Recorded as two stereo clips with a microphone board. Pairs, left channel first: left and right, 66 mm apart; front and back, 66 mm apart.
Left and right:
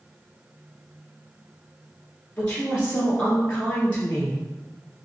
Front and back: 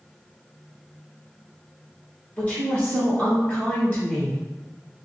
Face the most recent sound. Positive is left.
turn(degrees=35)